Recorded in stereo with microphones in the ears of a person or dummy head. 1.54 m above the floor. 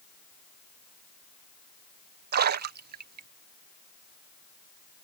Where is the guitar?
No guitar in this recording.